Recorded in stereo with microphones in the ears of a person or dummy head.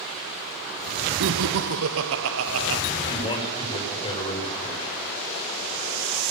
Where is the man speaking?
25° left (ahead or behind), 7 m.